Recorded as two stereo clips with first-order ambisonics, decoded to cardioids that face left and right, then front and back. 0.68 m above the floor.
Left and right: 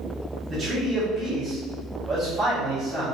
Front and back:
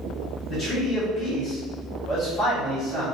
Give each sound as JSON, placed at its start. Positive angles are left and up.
{"t": 0.5, "sound": "a man speaking", "azimuth_deg": -35, "distance_m": 1.0}